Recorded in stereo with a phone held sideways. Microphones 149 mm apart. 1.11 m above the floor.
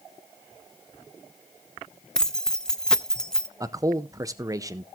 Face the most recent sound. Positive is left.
turn(degrees=-25)  # may be behind; listen again after turning